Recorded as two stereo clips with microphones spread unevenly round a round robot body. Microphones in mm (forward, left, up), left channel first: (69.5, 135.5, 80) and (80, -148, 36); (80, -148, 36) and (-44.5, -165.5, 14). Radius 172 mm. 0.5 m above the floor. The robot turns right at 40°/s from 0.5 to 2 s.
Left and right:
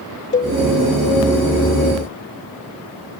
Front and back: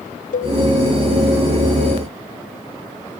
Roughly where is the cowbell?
Ahead left.